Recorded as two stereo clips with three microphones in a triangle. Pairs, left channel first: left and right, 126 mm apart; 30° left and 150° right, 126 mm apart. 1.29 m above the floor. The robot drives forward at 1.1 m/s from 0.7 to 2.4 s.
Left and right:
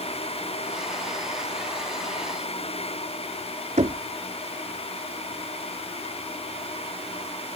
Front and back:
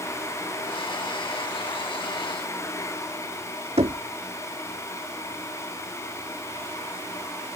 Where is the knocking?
115° right.